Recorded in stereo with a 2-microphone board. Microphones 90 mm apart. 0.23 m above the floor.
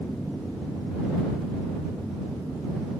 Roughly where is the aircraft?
Centre.